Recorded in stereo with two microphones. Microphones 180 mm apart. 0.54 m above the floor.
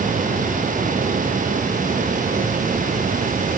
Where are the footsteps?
I don't hear footsteps.